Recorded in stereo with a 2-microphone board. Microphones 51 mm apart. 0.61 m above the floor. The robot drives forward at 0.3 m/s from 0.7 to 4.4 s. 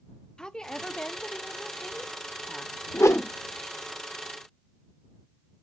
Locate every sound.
0.4 s a woman speaking: 15° left (ahead or behind), 0.6 m; by 3.1 s 10° left (ahead or behind), 0.8 m
2.9 s a whoosh: 80° left, 0.5 m; by 3.3 s 75° left (ahead or behind), 0.6 m